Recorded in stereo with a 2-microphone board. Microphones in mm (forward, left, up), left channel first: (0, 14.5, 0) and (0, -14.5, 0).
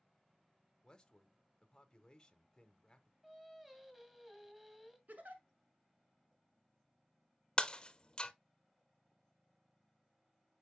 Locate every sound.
0.8 s a man speaking: 20° left (ahead or behind), 0.9 m
3.2 s singing: 15° right (ahead or behind), 1.9 m
5.1 s a giggle: 75° right (ahead or behind), 1.2 m
7.6 s breaking glass: 30° left (ahead or behind), 0.5 m